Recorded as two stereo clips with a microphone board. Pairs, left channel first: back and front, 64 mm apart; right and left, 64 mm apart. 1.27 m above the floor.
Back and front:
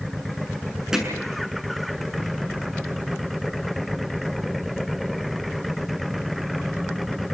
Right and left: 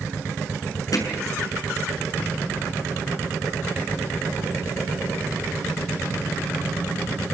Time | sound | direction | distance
0.9 | hammering | 80° right | 7 m